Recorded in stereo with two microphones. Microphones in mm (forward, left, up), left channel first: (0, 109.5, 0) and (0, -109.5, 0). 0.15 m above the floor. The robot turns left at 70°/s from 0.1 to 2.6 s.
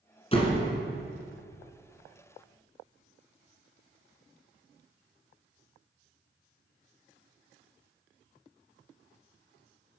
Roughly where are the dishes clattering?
I don't hear dishes clattering.